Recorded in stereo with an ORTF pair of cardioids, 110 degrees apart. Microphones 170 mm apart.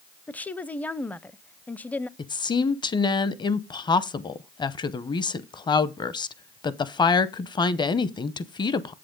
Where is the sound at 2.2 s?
25° left, 0.8 m.